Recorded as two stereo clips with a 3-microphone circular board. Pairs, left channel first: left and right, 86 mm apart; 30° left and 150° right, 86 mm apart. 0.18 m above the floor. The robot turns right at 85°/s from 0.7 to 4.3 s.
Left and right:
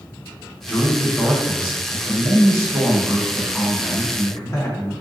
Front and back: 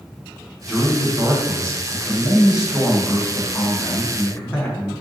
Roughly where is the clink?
No clink in this recording.